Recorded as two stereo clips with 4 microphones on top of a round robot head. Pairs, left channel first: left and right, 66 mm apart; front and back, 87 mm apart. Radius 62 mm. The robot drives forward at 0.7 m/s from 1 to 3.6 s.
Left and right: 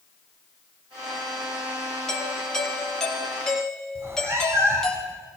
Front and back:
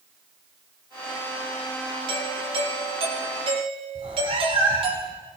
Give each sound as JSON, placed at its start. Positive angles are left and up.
{"t": 2.1, "sound": "a doorbell", "azimuth_deg": 170, "distance_m": 3.5}
{"t": 4.0, "sound": "a cat meowing", "azimuth_deg": -140, "distance_m": 4.0}